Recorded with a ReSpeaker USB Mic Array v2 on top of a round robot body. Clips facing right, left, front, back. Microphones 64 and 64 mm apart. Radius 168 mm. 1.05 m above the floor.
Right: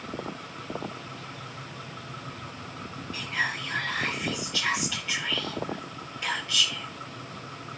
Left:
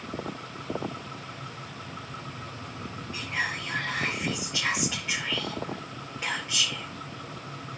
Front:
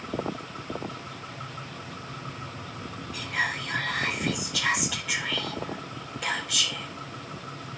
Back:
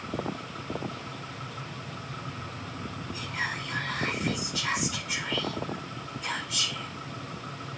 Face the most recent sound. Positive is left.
turn(degrees=20)